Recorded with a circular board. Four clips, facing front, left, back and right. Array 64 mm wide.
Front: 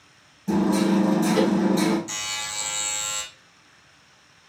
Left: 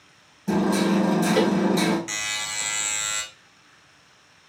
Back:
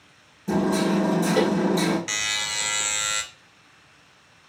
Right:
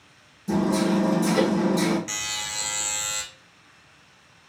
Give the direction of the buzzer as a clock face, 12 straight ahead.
6 o'clock.